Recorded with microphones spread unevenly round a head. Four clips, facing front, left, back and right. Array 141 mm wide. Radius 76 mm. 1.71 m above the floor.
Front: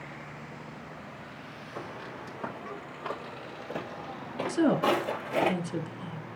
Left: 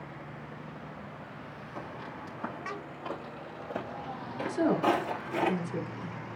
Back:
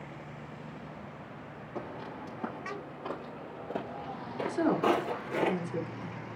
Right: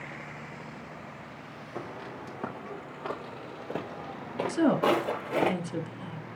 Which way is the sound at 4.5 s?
50° right.